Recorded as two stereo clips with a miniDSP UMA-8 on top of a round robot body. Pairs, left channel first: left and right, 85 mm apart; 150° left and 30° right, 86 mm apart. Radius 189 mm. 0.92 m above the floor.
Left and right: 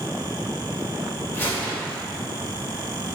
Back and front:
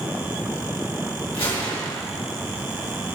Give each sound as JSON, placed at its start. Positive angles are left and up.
{"t": 1.3, "sound": "a gunshot", "azimuth_deg": 150, "distance_m": 3.0}